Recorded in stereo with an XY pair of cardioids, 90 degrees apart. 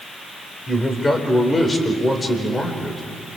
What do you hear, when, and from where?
0.7 s a man speaking: 20° left, 4.5 m